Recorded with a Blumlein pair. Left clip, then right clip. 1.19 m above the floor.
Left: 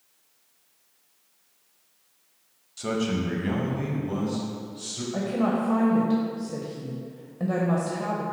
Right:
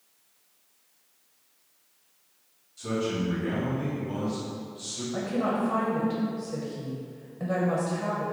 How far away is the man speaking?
About 0.9 m.